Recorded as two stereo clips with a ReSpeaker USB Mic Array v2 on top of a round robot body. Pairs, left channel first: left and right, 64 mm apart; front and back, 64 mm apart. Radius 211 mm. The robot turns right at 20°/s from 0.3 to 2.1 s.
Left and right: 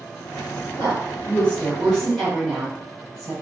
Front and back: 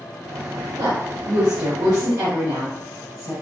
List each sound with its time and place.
0.8 s a woman speaking: 150° left, 1.9 m; by 3.3 s 175° left, 1.9 m